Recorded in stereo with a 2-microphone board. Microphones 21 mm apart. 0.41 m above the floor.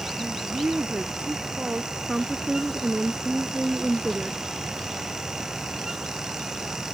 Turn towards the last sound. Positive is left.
turn(degrees=-15)  # may be behind; listen again after turning